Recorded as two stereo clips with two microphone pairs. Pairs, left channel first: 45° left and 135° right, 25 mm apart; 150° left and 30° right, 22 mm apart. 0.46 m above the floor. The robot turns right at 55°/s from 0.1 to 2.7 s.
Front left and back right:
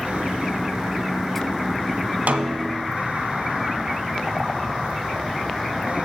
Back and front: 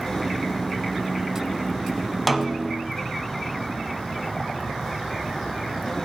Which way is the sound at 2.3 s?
120° right.